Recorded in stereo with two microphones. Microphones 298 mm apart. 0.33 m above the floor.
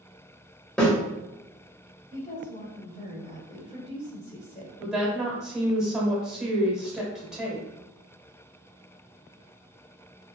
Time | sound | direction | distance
0.8 | a snare drum | 5° left (ahead or behind) | 1.5 m
2.1 | a woman speaking | 20° left (ahead or behind) | 0.9 m
4.8 | a woman speaking | centre (ahead or behind) | 1.0 m